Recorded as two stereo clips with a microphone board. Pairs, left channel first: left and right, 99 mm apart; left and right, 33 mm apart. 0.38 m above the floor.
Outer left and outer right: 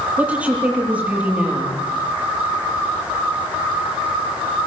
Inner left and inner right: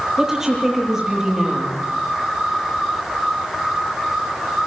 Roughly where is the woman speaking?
Centre.